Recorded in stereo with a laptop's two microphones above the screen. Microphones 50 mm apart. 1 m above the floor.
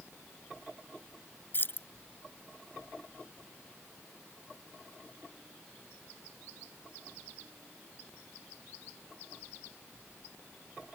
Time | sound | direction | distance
1.5 | keys jangling | 45° left (ahead or behind) | ?